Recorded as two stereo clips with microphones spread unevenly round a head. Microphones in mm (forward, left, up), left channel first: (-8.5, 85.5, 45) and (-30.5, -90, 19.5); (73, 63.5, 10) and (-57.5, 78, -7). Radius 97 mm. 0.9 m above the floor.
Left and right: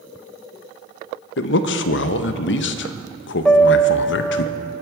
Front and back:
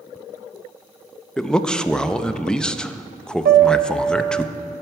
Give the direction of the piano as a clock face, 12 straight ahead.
6 o'clock.